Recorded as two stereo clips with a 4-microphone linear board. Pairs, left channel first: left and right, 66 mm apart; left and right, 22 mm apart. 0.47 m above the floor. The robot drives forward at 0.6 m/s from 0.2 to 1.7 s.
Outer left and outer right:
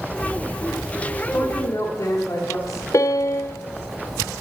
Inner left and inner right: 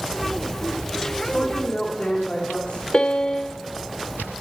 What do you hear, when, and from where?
1.3 s a woman speaking: 50° left (ahead or behind), 2 m
2.9 s a piano: 50° left (ahead or behind), 0.5 m